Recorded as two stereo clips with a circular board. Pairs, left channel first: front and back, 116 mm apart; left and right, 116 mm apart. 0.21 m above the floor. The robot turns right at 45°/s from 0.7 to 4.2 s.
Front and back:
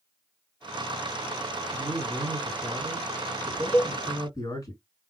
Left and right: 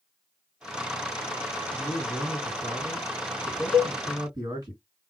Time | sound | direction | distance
1.7 | a man speaking | 160° right | 2.5 m
3.7 | a cowbell | 65° right | 0.6 m